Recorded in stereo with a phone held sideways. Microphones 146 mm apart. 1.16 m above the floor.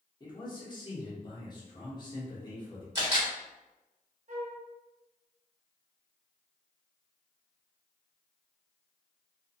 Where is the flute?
60° right (ahead or behind), 0.7 m.